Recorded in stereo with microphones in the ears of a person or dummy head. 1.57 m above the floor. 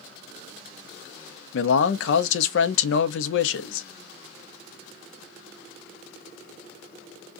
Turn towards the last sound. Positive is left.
turn(degrees=75)  # may be behind; listen again after turning